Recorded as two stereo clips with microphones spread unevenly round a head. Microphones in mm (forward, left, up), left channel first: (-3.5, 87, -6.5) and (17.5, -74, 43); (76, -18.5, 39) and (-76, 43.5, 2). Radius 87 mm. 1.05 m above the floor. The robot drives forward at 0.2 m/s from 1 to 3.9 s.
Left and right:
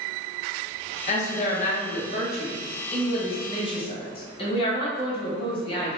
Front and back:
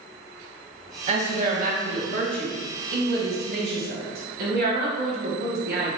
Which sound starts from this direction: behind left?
A woman speaking, at 1.1 s.